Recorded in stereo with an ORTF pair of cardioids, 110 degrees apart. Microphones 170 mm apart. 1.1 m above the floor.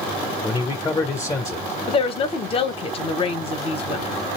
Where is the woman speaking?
35° left, 0.9 m.